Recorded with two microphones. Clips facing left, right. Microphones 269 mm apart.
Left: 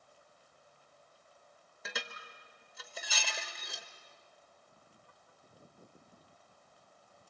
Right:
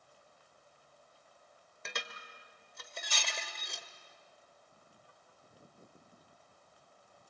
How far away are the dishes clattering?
About 1.5 m.